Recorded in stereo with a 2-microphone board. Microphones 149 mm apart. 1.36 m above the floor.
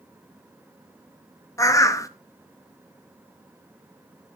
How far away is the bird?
About 0.5 m.